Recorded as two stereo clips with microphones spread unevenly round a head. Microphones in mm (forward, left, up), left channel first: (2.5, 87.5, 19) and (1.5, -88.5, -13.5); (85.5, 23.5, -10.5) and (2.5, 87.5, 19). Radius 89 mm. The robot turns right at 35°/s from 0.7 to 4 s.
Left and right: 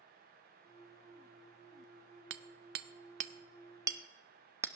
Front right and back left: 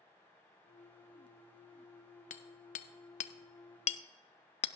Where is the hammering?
70° right, 0.6 m; by 4.7 s 10° right, 0.6 m.